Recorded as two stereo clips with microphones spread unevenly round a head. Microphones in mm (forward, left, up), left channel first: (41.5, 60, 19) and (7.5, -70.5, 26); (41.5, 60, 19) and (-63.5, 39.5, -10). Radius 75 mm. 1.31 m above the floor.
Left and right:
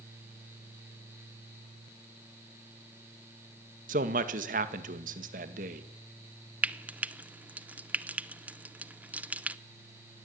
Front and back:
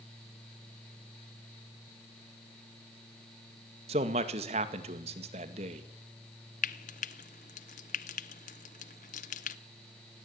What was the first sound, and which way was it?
A man speaking, 135° right.